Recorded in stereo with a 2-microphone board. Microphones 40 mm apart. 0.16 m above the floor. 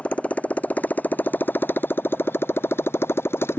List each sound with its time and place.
0.0 s a motorcycle: 35° left (ahead or behind); by 3.6 s 80° left